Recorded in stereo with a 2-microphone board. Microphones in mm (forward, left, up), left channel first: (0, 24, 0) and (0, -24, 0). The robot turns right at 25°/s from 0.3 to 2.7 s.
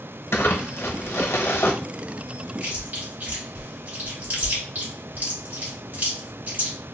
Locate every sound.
0.3 s crumpling: 70° left, 0.9 m; by 1.7 s 105° left, 0.9 m
2.6 s chewing: 35° right (ahead or behind), 3 m